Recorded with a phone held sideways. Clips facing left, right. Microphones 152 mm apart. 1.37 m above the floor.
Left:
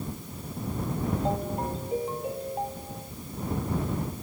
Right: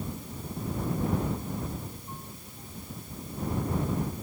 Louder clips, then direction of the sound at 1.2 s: Left 5 dB; 80° left.